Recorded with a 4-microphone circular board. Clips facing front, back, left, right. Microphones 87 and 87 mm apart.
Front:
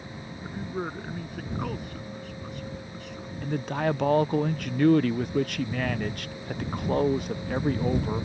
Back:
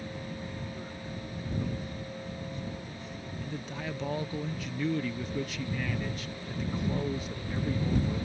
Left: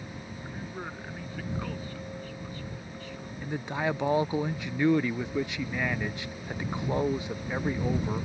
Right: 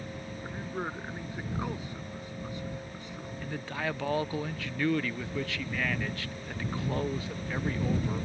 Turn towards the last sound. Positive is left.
turn(degrees=20)